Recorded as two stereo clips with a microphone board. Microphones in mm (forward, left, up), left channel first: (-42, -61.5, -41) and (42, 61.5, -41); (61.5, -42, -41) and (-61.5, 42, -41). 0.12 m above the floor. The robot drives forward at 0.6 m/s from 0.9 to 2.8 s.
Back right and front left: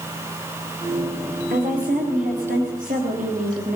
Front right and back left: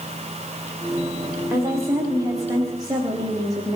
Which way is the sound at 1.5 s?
75° left.